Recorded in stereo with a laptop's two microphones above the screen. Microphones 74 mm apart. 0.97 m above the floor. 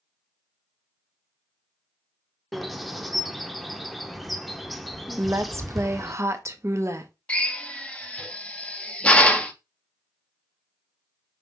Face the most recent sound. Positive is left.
turn(degrees=15)  # may be behind; listen again after turning